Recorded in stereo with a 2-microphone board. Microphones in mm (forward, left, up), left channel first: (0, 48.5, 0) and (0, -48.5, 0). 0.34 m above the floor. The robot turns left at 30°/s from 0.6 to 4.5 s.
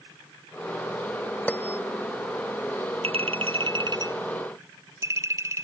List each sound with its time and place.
1.5 s a bell: 15° left (ahead or behind); by 1.8 s 25° left (ahead or behind)
3.0 s a clink: 105° right; by 5.6 s 150° right